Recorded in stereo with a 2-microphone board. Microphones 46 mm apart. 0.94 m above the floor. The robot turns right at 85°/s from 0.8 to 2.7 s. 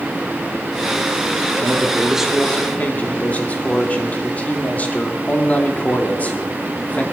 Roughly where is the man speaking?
Ahead right.